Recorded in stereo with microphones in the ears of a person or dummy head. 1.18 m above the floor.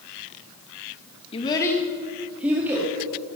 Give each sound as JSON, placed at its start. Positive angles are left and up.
{"t": 1.3, "sound": "a child speaking", "side_deg": 30, "distance_m": 1.0}